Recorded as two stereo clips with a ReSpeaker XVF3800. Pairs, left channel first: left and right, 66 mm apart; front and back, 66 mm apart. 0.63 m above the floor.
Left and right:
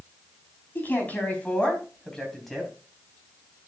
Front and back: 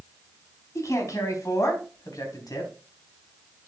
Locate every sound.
0.8 s a man speaking: 30° left, 4 m; by 2.7 s straight ahead, 3.5 m